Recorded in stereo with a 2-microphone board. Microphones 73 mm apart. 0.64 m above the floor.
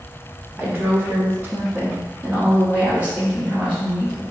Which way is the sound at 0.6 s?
25° right (ahead or behind).